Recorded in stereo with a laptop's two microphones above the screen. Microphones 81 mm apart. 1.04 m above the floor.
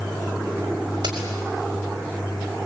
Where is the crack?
70° right (ahead or behind), 5 m.